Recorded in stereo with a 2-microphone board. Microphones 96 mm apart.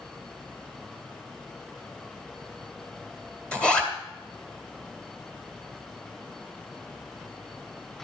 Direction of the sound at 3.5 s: 10° left (ahead or behind).